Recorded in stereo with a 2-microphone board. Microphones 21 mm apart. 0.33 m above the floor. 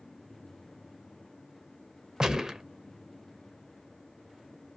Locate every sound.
2.2 s a gunshot: 30° right (ahead or behind), 0.6 m